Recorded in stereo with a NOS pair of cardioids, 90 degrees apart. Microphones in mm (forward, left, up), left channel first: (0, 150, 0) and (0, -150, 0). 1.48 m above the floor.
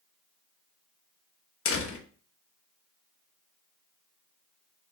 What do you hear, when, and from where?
1.6 s a door slam: 50° left, 2 m